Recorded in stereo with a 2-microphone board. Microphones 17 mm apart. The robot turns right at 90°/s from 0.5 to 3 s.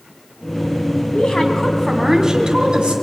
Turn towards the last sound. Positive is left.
turn(degrees=-80)